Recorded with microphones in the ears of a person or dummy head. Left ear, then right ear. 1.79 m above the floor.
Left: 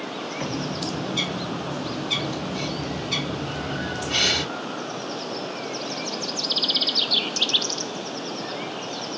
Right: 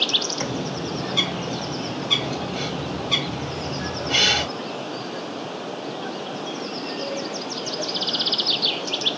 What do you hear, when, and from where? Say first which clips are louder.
0.4 s a bird: right 1 dB; 25° right (ahead or behind), 1.5 m